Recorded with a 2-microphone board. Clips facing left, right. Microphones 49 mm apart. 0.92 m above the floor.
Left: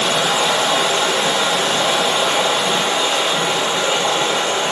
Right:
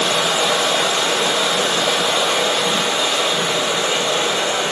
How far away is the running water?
About 1.9 m.